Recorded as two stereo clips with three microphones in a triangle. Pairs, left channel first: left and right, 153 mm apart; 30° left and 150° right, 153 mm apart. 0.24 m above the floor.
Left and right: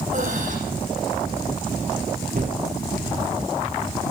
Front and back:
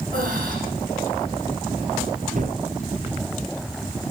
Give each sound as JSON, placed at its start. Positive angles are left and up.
{"t": 0.1, "sound": "breathing", "azimuth_deg": -125, "distance_m": 8.5}
{"t": 2.4, "sound": "a gunshot", "azimuth_deg": -115, "distance_m": 2.0}